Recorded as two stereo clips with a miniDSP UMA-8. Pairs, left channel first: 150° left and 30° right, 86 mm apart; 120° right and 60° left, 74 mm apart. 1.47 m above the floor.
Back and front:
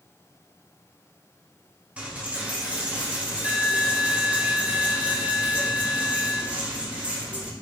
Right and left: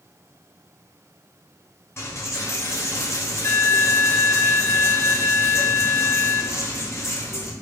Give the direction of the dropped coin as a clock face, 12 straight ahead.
3 o'clock.